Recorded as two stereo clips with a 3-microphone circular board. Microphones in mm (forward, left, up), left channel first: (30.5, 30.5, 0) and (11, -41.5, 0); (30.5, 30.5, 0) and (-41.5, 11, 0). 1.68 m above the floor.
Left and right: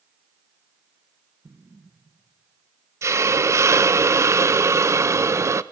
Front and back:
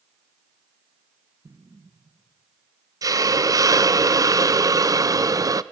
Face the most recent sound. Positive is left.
turn(degrees=-145)